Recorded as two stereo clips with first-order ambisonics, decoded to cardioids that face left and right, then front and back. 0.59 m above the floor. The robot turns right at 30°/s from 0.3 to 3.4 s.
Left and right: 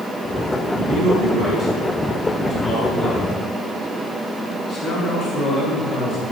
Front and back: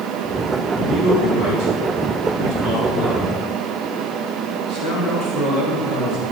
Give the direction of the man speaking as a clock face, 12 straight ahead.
1 o'clock.